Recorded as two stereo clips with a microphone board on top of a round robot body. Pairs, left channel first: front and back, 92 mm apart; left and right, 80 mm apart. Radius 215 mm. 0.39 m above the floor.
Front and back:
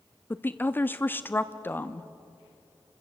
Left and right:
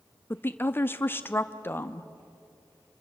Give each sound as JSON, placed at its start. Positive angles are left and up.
{"t": 0.3, "sound": "a woman speaking", "azimuth_deg": 50, "distance_m": 0.9}